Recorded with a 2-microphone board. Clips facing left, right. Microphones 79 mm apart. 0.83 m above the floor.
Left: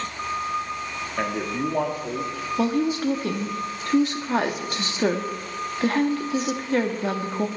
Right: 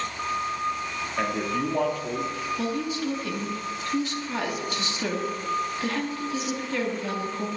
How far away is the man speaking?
About 1.6 m.